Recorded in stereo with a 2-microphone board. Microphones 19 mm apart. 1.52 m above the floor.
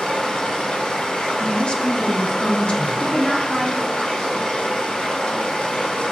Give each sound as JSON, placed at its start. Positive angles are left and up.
{"t": 0.0, "sound": "running water", "side_deg": 70, "distance_m": 1.6}
{"t": 1.4, "sound": "a woman speaking", "side_deg": 65, "distance_m": 1.4}
{"t": 3.0, "sound": "a woman speaking", "side_deg": 75, "distance_m": 3.5}